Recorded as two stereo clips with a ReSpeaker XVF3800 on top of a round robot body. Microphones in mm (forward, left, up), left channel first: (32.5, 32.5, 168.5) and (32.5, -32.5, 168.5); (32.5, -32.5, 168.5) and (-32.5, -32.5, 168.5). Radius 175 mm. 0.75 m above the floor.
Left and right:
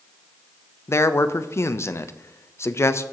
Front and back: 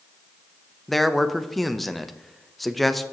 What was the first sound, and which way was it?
A man speaking, 90° left.